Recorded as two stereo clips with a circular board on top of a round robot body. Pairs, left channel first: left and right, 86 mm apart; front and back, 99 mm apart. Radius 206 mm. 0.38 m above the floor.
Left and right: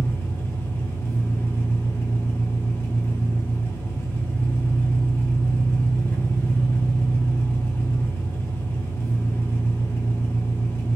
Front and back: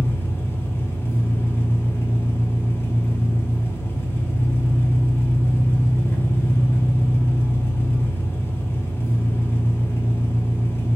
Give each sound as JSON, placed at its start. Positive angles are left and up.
{"t": 0.0, "sound": "an engine running", "azimuth_deg": 50, "distance_m": 1.0}